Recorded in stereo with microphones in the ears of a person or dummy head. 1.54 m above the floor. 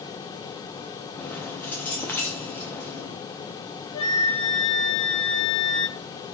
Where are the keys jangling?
15° left (ahead or behind), 0.7 m.